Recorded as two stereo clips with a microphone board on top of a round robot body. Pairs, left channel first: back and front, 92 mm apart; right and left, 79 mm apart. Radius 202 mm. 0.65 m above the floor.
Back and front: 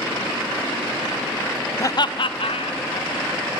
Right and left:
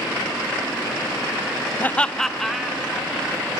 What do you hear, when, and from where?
1.8 s laughter: 140° right, 0.6 m; by 3.3 s 175° left, 1.9 m